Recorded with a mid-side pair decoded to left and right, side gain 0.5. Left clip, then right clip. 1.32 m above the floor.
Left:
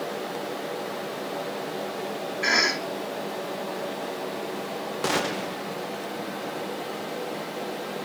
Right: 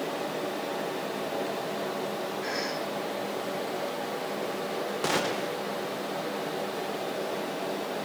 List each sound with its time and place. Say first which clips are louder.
2.4 s a cough: left 13 dB; 70° left, 2.5 m
5.0 s a gunshot: left 2 dB; 10° left, 1.4 m